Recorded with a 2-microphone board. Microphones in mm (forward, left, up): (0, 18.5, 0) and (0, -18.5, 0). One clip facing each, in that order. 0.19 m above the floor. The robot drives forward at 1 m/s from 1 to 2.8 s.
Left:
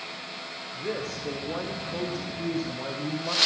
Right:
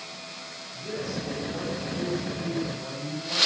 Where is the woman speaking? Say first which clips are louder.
Even; 50° left (ahead or behind), 7 m; by 3.4 s 60° left (ahead or behind), 6 m.